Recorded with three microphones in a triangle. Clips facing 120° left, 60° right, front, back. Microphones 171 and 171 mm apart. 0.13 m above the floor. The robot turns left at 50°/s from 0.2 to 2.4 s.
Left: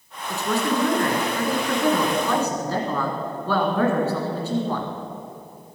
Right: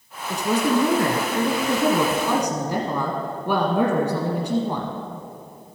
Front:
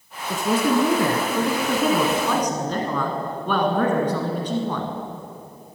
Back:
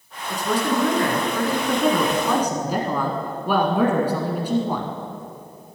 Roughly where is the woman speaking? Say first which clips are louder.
Right 3 dB, front 2 dB; ahead.